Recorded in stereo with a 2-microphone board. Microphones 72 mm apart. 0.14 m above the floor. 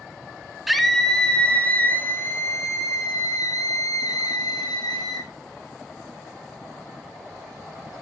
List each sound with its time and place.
0.7 s a scream: centre (ahead or behind), 1.2 m; by 5.3 s 65° left (ahead or behind), 2.5 m